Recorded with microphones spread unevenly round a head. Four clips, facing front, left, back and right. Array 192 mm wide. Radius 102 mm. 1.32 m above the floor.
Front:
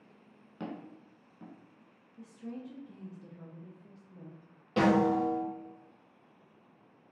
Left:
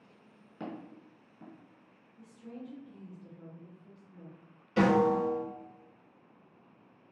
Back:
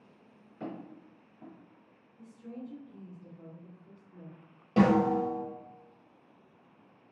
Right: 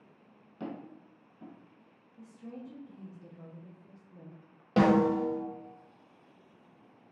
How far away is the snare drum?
About 1.0 m.